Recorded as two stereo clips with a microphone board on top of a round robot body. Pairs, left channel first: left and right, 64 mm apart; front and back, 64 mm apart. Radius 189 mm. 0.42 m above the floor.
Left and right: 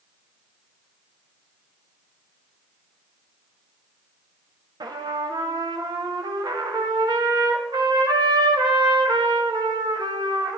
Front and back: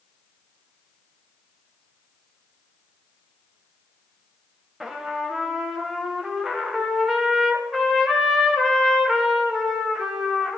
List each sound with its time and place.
4.8 s a trumpet: 95° right, 0.6 m